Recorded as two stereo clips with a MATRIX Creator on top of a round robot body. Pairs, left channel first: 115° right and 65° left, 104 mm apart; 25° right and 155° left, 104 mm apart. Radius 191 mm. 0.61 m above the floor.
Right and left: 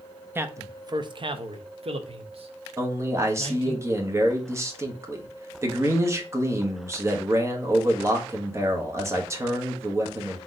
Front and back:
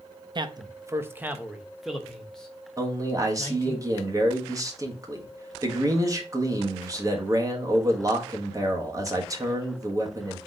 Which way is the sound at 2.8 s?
115° left.